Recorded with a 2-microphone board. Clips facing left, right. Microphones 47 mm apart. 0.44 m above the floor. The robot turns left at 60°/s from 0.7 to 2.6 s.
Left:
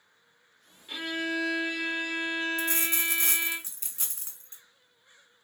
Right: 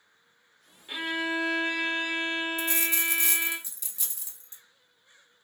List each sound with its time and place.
0.9 s a violin: 30° right, 1.0 m; by 3.6 s 135° right, 1.0 m
2.6 s a dropped coin: 40° left (ahead or behind), 1.2 m